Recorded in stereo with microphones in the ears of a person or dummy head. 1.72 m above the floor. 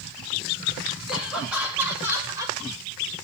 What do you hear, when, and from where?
1.1 s laughter: 5° right (ahead or behind), 3.5 m; by 2.6 s 20° right (ahead or behind), 5 m